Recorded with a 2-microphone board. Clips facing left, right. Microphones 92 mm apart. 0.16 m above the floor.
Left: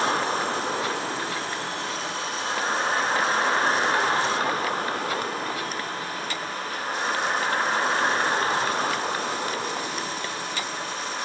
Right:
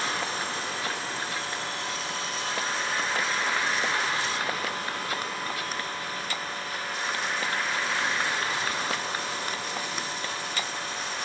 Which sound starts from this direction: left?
A vehicle, at 0.0 s.